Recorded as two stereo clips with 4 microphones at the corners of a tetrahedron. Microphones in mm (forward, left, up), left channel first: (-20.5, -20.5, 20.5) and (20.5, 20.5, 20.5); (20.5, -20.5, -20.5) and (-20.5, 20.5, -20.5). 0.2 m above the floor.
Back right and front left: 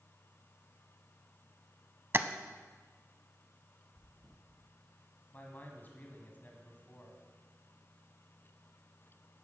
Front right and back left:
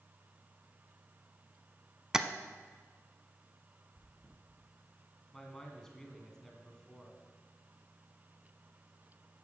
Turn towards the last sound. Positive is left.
turn(degrees=-120)